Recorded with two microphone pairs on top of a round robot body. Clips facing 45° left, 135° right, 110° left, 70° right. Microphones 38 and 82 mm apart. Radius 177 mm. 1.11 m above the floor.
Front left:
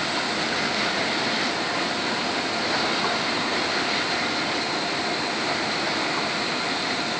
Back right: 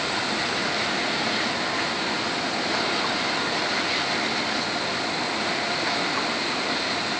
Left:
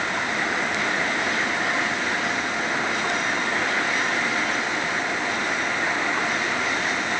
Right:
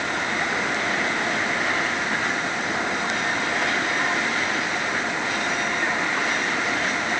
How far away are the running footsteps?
No running footsteps in this recording.